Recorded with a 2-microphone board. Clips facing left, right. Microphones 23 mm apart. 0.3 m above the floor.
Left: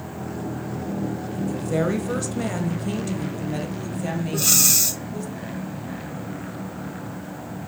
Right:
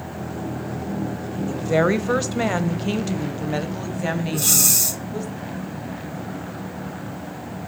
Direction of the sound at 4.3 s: 15° left (ahead or behind).